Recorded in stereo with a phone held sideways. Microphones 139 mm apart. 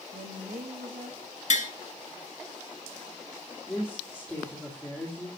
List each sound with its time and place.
0.1 s a woman speaking: 75° right (ahead or behind), 1.4 m
1.5 s tapping: 60° left (ahead or behind), 0.9 m
3.7 s a woman speaking: 5° left (ahead or behind), 2.0 m